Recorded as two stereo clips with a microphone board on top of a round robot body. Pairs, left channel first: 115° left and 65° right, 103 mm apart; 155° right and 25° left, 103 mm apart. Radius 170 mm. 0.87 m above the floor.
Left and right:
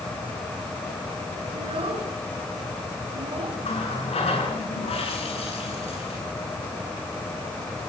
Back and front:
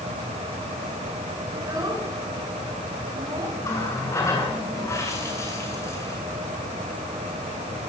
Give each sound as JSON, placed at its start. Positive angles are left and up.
{"t": 1.5, "sound": "a child speaking", "azimuth_deg": -35, "distance_m": 8.0}
{"t": 3.6, "sound": "a running tap", "azimuth_deg": 140, "distance_m": 9.5}